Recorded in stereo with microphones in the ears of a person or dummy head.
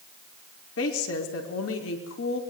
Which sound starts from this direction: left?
A woman speaking, at 0.8 s.